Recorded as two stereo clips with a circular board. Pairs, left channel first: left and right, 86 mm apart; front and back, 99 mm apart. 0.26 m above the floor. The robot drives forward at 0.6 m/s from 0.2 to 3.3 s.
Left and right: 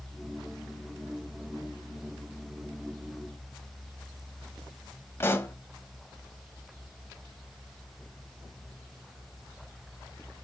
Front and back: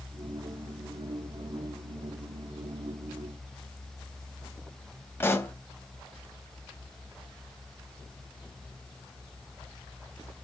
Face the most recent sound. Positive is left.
turn(degrees=50)